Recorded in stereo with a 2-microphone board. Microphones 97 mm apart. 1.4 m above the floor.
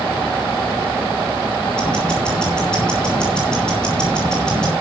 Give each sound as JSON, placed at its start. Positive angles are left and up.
{"t": 1.8, "sound": "ticking", "side_deg": 10, "distance_m": 8.0}